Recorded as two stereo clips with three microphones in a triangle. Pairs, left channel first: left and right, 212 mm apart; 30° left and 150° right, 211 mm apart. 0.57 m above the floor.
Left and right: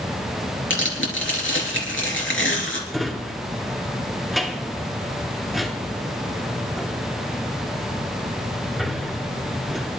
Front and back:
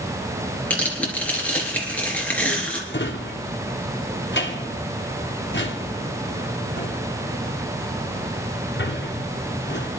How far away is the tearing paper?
About 3.5 m.